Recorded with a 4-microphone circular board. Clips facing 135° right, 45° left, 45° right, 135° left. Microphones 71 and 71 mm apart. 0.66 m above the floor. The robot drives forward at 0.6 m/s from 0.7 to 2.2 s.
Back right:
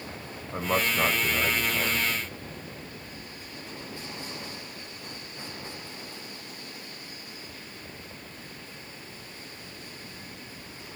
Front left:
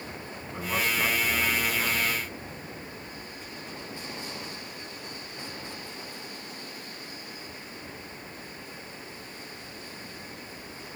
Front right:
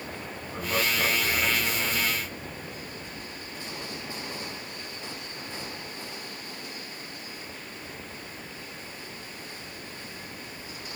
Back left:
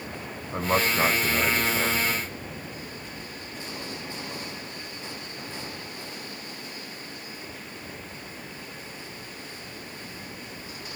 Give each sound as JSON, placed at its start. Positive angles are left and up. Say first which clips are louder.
{"t": 0.5, "sound": "a man speaking", "louder": "back right 3 dB, back left 4 dB", "azimuth_deg": -175, "distance_m": 3.5}